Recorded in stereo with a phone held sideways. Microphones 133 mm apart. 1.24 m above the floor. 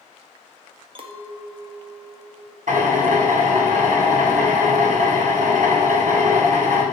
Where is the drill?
80° right, 4 m.